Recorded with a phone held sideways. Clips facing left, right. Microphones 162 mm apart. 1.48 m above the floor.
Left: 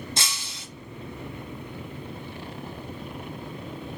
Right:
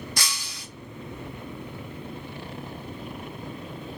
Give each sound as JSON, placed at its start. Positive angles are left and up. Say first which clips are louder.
{"t": 0.2, "sound": "breaking glass", "louder": "even", "side_deg": 25, "distance_m": 0.6}